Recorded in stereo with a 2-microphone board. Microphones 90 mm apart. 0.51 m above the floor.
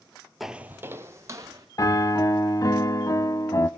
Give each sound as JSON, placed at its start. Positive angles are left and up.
{"t": 0.4, "sound": "footsteps", "side_deg": 0, "distance_m": 0.6}
{"t": 1.8, "sound": "a piano", "side_deg": 40, "distance_m": 0.6}